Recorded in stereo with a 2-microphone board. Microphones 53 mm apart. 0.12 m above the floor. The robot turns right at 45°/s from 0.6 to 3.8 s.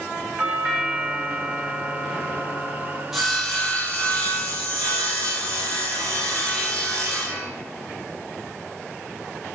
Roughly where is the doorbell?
Right.